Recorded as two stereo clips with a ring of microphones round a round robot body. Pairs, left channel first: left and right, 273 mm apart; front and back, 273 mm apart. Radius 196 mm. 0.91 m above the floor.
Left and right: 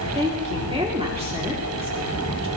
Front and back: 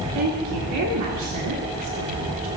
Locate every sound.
0.1 s a woman speaking: 160° right, 2.5 m